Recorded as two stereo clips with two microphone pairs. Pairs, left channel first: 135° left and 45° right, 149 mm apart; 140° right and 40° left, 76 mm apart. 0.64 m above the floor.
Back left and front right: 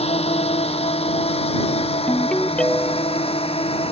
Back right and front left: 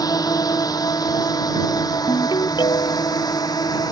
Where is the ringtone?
140° right.